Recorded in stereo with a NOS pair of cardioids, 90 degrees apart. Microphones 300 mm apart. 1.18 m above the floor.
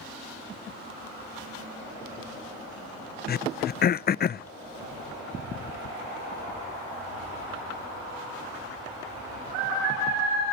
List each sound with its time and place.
3.3 s throat clearing: 35° left, 0.5 m